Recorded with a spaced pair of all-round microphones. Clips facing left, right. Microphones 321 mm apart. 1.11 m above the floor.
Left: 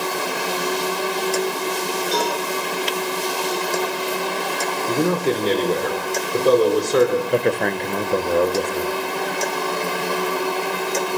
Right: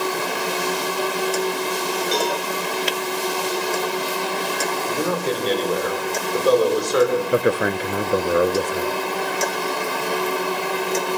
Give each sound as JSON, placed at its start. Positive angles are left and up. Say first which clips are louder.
{"t": 2.1, "sound": "a cowbell", "louder": "even", "side_deg": -40, "distance_m": 7.0}
{"t": 4.9, "sound": "a man speaking", "louder": "left 5 dB", "side_deg": 35, "distance_m": 3.5}
{"t": 7.3, "sound": "a man speaking", "louder": "right 1 dB", "side_deg": -5, "distance_m": 0.7}